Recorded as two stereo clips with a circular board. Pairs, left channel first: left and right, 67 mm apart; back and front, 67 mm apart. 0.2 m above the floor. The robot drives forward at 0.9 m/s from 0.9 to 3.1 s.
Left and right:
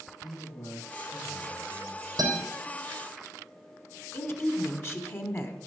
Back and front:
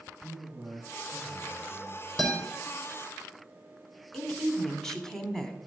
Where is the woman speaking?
100° left, 1.2 m.